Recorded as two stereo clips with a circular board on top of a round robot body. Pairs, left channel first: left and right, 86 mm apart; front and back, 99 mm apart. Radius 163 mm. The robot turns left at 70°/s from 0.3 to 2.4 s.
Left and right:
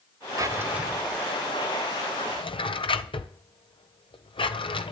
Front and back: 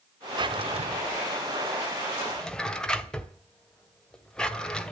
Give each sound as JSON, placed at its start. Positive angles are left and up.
{"t": 0.4, "sound": "a drawer", "azimuth_deg": -140, "distance_m": 1.8}